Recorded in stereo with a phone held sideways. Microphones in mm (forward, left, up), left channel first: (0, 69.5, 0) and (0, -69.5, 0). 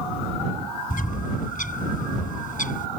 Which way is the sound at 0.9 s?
75° left (ahead or behind).